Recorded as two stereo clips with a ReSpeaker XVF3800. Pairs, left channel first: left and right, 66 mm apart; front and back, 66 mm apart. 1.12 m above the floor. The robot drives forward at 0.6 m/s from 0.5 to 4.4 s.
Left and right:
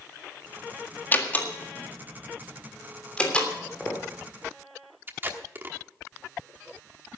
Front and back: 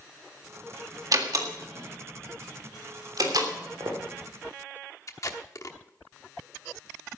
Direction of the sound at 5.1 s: 35° right.